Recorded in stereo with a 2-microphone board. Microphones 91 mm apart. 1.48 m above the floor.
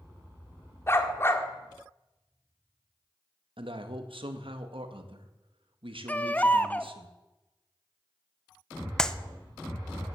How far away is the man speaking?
About 1.8 m.